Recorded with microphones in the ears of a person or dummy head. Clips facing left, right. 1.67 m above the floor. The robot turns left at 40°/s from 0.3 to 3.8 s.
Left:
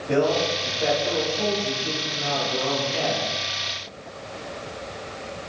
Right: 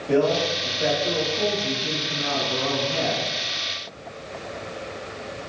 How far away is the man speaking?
About 4 m.